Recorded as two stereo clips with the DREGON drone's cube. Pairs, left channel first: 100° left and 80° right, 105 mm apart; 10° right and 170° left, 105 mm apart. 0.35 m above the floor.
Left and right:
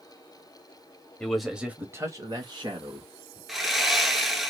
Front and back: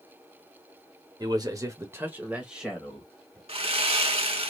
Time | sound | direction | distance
1.2 | a man speaking | 175° left | 1.0 m
3.5 | sawing | 165° right | 0.9 m